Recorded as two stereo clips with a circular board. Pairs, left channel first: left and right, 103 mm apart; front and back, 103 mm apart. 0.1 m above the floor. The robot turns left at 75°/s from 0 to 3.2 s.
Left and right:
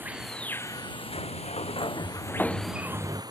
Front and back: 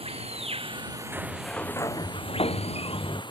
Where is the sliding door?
110° left; by 3.2 s 45° right.